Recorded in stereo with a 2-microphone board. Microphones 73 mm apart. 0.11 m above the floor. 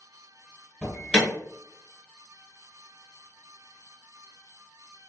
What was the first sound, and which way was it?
An alarm, 10° left (ahead or behind).